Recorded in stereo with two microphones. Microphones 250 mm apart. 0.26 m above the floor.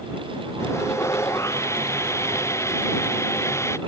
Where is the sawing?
10° left (ahead or behind).